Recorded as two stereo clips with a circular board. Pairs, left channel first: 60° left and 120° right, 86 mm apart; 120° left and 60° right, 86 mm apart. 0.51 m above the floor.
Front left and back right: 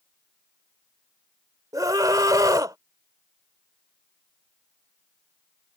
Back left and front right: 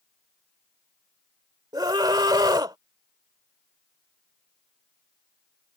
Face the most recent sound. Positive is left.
turn(degrees=-85)